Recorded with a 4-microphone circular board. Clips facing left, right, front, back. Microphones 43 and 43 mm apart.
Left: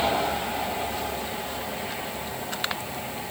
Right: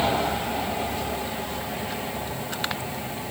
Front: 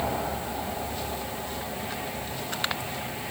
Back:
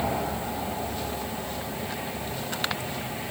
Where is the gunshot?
I don't hear a gunshot.